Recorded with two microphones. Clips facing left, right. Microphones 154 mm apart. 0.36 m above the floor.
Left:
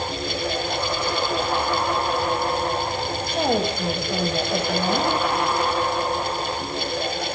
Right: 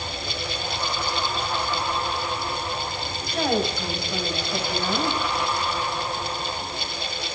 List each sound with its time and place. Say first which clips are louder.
3.0 s a woman speaking: left 1 dB; 25° left (ahead or behind), 1.7 m